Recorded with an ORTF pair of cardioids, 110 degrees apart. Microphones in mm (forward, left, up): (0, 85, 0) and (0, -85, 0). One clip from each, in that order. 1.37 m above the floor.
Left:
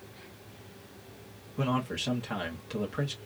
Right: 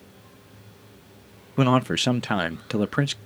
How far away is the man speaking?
About 0.5 m.